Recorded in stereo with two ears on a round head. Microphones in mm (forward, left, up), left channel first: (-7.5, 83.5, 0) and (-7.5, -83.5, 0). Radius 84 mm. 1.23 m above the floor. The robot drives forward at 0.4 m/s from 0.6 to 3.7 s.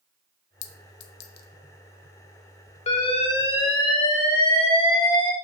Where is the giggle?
I don't hear a giggle.